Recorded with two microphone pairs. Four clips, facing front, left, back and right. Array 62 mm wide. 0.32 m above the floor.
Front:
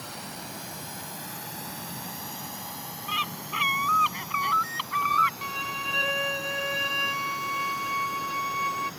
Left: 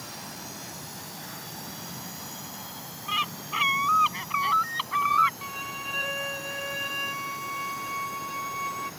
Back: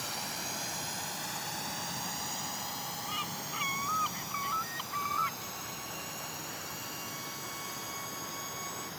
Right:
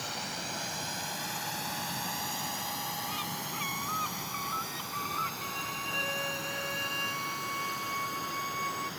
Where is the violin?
15° left.